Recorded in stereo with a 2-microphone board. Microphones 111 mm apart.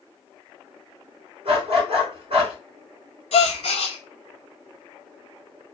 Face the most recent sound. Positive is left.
turn(degrees=80)